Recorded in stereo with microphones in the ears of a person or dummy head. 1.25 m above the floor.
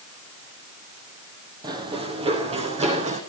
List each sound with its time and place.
1.6 s running footsteps: 20° right (ahead or behind), 2.5 m; by 3.2 s 35° right (ahead or behind), 3.5 m